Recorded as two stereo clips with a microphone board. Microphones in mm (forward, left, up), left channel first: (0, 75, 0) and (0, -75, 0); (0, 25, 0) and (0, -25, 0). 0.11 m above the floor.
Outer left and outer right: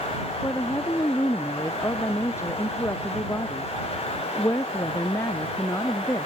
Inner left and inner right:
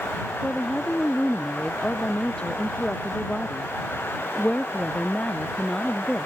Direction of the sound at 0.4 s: 20° left (ahead or behind).